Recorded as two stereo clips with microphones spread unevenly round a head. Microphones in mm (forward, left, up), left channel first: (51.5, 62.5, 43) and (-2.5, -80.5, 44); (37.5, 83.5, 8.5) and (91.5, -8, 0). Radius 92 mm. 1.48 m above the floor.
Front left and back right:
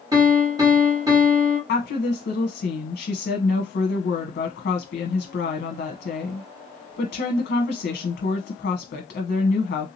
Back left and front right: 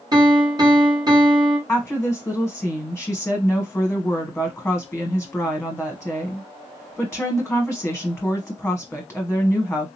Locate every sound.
0.1 s a piano: 60° right, 1.2 m
1.7 s a woman speaking: 45° left, 0.9 m